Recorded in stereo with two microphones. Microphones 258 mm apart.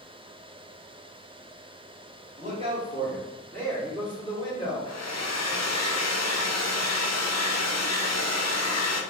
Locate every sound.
2.4 s a man speaking: 30° right (ahead or behind), 1.4 m; by 4.9 s 30° left (ahead or behind), 2.5 m
4.9 s a hair dryer: 80° left, 0.6 m